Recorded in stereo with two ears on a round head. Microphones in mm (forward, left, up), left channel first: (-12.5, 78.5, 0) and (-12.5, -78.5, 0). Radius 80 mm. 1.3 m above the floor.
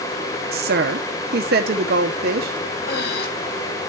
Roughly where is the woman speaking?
Right.